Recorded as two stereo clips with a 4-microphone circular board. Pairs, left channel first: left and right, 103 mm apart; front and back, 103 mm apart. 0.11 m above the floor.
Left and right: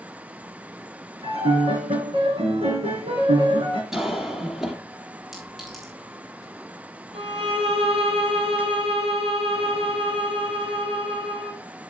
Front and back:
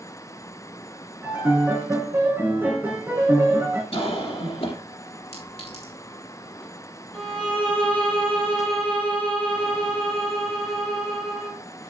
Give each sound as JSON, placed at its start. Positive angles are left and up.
{"t": 1.2, "sound": "a piano", "azimuth_deg": -105, "distance_m": 6.0}
{"t": 3.9, "sound": "a cough", "azimuth_deg": -5, "distance_m": 3.0}
{"t": 5.3, "sound": "a clink", "azimuth_deg": 0, "distance_m": 4.0}
{"t": 7.1, "sound": "a violin", "azimuth_deg": -80, "distance_m": 3.5}